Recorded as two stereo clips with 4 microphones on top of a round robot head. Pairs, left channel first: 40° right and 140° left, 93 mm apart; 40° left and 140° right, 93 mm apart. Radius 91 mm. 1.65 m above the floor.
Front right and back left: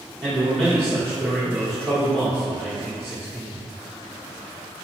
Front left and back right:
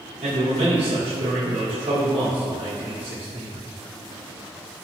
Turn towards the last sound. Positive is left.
turn(degrees=-120)